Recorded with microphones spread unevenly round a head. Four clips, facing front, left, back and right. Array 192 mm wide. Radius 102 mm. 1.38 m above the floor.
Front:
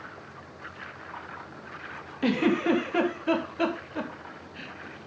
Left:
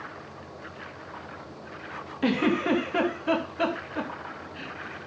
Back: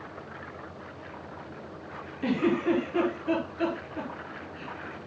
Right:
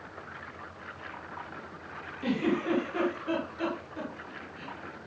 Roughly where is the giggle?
Ahead left.